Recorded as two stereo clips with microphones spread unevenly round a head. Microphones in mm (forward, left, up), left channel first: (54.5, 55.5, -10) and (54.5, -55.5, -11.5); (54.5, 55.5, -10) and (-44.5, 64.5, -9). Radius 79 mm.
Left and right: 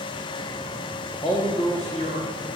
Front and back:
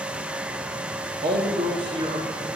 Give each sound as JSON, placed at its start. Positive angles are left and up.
{"t": 1.2, "sound": "a man speaking", "azimuth_deg": 155, "distance_m": 1.4}